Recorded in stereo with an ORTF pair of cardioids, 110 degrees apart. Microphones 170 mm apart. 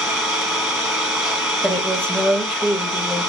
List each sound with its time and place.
0.0 s an engine running: straight ahead, 1.3 m
1.6 s a woman speaking: 5° left, 1.2 m